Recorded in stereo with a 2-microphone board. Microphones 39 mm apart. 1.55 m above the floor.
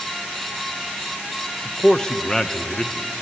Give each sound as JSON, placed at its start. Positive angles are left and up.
{"t": 1.6, "sound": "a man speaking", "side_deg": 15, "distance_m": 0.6}